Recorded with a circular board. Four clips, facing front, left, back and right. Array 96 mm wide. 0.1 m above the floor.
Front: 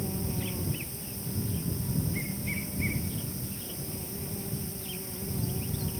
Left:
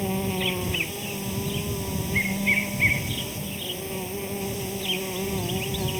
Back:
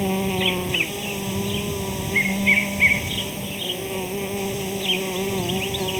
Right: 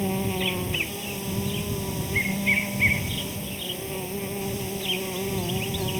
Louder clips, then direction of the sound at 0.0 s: Even, back 12 dB; straight behind.